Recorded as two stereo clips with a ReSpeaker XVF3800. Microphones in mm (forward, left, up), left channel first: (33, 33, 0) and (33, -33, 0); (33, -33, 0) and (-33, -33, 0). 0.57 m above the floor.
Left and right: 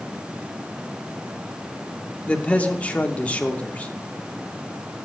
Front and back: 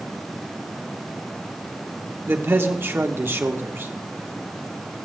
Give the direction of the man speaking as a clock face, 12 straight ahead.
7 o'clock.